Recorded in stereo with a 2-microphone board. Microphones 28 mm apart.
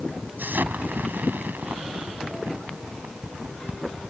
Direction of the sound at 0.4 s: 85° right.